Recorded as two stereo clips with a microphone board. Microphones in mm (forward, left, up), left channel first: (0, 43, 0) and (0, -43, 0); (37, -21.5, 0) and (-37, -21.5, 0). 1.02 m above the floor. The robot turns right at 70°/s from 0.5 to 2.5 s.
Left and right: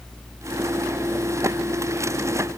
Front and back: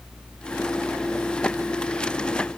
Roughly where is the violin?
No violin in this recording.